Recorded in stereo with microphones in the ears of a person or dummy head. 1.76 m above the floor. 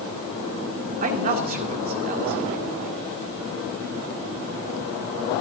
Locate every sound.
1.0 s a man speaking: 50° right (ahead or behind), 2.5 m